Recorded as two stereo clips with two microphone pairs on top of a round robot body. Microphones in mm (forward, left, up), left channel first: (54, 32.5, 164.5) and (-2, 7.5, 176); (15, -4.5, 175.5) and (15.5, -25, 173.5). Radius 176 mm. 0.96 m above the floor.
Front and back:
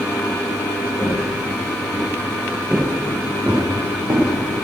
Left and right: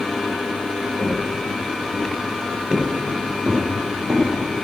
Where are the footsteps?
70° right, 5.5 m; by 4.3 s 115° right, 3.5 m.